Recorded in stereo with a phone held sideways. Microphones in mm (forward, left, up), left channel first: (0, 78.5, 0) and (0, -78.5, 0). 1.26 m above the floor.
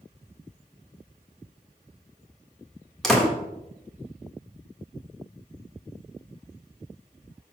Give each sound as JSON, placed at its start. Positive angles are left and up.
{"t": 3.0, "sound": "a door slam", "side_deg": 5, "distance_m": 1.4}